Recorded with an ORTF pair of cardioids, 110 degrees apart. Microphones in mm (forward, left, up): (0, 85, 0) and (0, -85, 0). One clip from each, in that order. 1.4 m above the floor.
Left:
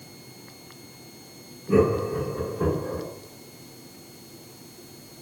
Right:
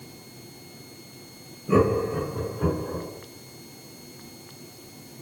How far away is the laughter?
About 0.8 m.